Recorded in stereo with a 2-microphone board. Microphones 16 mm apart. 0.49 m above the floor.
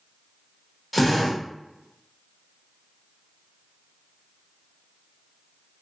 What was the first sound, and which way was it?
A drill, 5° right (ahead or behind).